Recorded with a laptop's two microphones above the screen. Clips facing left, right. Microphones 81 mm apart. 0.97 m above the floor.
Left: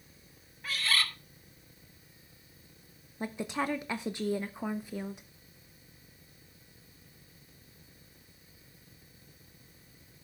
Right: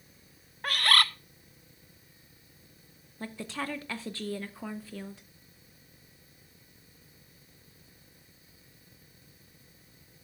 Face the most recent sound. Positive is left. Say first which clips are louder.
# left 3 dB
turn(degrees=20)  # may be behind; listen again after turning